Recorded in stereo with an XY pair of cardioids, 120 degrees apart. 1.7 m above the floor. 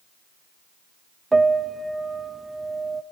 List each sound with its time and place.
1.3 s a piano: 20° right, 0.6 m